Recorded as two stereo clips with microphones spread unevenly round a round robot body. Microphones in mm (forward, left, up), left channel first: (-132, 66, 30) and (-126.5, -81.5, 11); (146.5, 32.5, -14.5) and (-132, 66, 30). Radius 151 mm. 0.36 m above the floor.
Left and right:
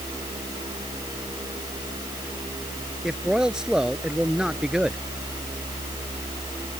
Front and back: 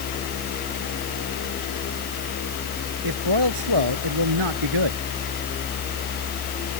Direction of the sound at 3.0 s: 175° right.